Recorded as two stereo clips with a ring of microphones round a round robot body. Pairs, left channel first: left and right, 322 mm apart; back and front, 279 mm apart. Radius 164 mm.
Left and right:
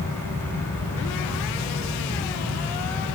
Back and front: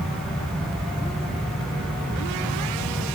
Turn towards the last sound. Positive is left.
No sound to turn to.